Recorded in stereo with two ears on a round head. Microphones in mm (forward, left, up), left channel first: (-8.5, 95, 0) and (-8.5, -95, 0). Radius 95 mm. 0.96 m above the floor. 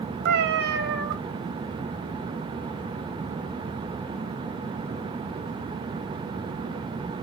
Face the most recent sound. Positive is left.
turn(degrees=-50)  # may be behind; listen again after turning